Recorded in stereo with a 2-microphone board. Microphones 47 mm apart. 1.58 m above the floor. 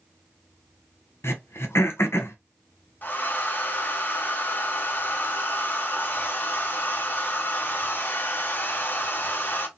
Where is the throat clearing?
65° left (ahead or behind), 0.8 m.